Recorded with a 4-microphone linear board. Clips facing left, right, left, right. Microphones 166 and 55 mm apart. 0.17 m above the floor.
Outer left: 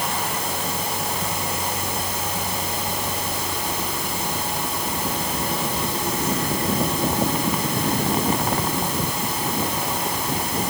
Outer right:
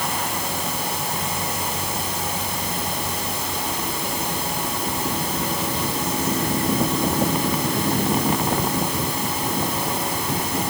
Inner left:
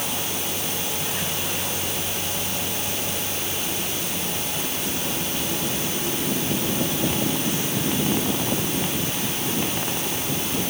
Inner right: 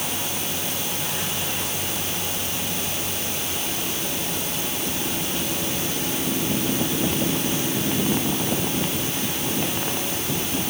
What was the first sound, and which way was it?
Only background noise.